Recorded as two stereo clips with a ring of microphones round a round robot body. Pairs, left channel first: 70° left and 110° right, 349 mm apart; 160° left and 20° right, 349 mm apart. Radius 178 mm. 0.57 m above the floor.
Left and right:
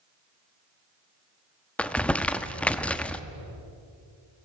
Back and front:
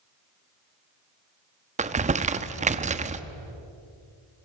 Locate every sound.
1.8 s crumpling: 10° right, 1.0 m